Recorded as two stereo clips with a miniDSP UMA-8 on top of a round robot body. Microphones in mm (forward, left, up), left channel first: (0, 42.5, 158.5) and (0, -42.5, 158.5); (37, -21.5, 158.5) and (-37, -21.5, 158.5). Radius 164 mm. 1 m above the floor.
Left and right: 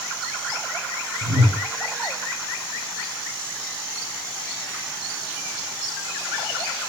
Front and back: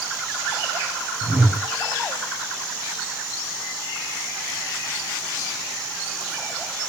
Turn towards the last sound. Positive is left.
turn(degrees=-115)